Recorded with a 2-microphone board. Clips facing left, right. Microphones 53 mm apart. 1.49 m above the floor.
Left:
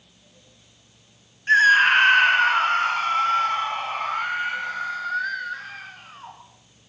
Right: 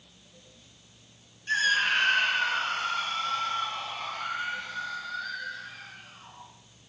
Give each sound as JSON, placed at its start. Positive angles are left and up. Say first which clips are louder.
{"t": 1.5, "sound": "a scream", "louder": "left 10 dB", "side_deg": 45, "distance_m": 1.7}